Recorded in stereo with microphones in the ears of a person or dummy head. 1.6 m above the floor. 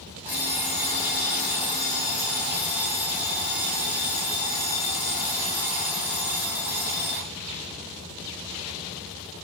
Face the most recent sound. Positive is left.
turn(degrees=-10)  # may be behind; listen again after turning